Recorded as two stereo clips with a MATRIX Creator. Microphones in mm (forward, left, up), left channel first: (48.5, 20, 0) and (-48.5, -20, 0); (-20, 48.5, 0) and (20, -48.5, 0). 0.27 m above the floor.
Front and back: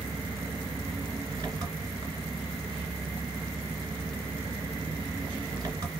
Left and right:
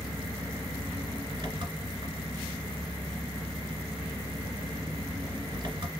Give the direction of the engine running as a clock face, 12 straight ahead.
3 o'clock.